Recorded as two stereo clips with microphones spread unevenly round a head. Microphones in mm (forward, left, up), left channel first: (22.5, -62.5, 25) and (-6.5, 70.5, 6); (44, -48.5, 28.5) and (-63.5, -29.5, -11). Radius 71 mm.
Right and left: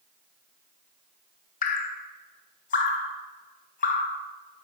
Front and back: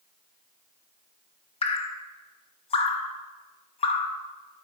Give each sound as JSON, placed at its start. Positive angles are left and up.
{"t": 1.6, "sound": "dripping", "azimuth_deg": -45, "distance_m": 0.9}